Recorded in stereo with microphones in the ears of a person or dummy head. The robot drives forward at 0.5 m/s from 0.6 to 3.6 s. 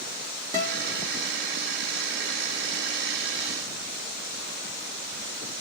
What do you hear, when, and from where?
0.5 s a guitar: 15° right (ahead or behind), 0.8 m